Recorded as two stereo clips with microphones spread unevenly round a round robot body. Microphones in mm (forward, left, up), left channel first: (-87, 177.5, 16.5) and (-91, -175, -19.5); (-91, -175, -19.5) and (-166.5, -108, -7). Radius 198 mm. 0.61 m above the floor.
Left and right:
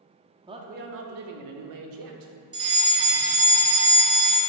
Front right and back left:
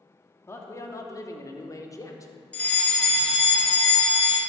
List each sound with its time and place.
0.5 s a man speaking: 35° right, 0.8 m; by 2.3 s 95° right, 1.6 m
2.5 s a fire alarm: 60° right, 1.6 m